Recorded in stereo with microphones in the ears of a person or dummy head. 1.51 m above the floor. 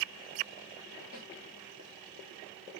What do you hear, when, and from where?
1.1 s a snare drum: 45° left (ahead or behind), 1.8 m